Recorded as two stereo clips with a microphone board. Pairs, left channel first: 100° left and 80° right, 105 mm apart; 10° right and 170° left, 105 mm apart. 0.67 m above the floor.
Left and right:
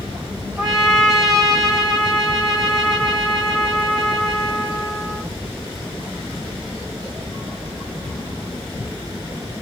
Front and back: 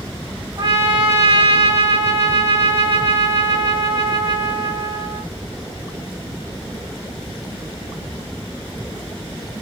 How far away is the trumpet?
About 1.1 m.